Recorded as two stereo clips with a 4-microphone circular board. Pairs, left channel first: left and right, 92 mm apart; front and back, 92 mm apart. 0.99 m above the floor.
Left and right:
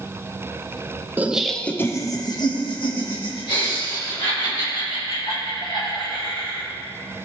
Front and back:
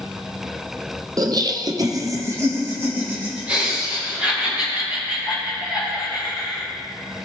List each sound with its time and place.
1.2 s laughter: 155° right, 0.7 m; by 6.6 s 100° left, 4.5 m